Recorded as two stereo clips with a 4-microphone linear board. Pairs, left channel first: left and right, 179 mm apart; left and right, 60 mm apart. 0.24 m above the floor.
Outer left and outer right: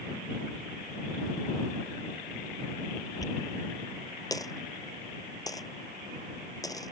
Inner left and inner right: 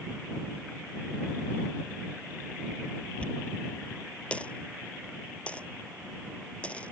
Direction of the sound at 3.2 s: 20° left (ahead or behind).